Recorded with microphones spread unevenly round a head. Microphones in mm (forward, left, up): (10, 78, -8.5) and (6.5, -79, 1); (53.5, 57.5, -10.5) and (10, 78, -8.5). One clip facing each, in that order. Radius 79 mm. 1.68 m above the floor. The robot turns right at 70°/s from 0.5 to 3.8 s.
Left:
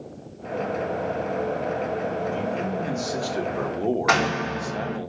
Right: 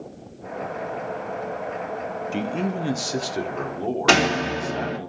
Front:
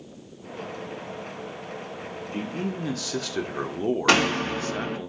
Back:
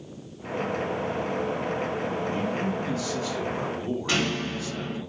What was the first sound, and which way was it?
A man speaking, 90° right.